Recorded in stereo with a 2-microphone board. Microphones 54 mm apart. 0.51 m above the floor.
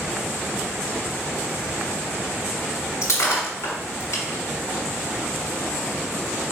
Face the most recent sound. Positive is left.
turn(degrees=75)  # may be behind; listen again after turning